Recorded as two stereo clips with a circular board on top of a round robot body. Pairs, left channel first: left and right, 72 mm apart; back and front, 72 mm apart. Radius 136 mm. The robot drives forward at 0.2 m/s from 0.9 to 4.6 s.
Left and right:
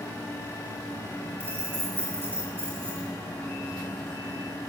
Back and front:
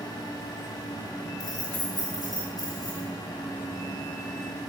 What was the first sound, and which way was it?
Keys jangling, 150° right.